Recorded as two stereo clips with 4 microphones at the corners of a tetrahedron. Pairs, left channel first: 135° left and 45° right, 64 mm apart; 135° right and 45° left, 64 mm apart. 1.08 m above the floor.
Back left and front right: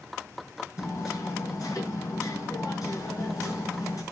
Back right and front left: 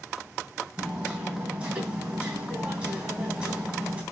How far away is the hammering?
About 3 m.